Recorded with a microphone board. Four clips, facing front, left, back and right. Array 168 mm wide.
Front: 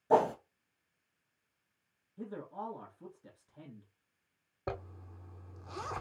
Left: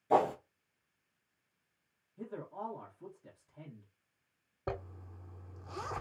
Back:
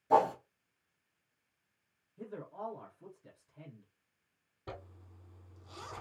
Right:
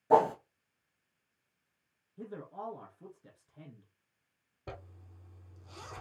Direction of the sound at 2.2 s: 40° right.